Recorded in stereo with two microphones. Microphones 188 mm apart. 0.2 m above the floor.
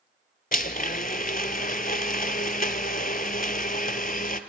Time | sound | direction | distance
0.5 | a blender | 45° left (ahead or behind) | 0.8 m